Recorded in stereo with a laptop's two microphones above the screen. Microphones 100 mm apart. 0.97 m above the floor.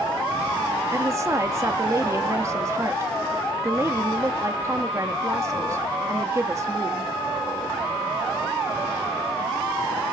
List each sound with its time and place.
0.9 s a woman speaking: 30° right (ahead or behind), 1.8 m